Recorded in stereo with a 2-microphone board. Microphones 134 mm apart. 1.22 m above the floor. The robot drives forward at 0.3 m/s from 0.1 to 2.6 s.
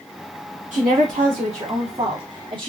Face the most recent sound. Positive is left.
turn(degrees=-40)  # may be behind; listen again after turning